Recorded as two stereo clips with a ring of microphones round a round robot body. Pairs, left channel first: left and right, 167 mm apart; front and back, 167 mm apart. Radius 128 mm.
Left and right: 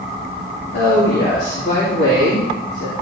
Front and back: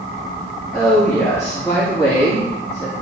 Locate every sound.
0.7 s a woman speaking: 70° left, 2.5 m